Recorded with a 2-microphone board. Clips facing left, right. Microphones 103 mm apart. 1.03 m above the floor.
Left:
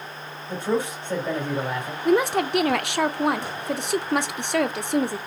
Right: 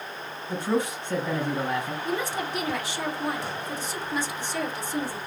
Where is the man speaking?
25° left (ahead or behind), 3 m.